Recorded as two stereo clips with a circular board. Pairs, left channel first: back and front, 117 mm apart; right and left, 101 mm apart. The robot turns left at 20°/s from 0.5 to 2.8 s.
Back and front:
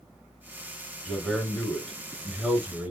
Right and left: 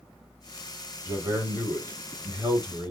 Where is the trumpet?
No trumpet in this recording.